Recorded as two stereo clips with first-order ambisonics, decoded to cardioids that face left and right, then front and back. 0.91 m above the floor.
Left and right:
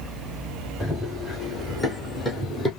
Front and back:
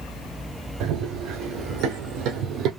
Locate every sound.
0.8 s running footsteps: 165° left, 2 m; by 2.7 s 160° left, 1.3 m